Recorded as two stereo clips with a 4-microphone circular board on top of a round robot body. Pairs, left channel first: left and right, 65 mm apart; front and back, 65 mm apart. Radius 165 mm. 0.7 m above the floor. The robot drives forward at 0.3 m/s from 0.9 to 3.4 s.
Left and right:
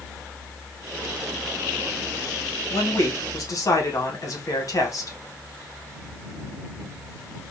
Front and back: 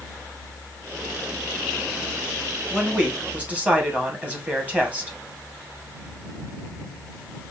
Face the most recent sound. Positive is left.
turn(degrees=115)